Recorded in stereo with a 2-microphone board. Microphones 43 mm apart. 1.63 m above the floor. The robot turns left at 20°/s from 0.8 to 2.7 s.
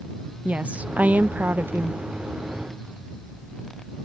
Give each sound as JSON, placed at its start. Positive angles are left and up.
{"t": 0.5, "sound": "a woman speaking", "side_deg": -30}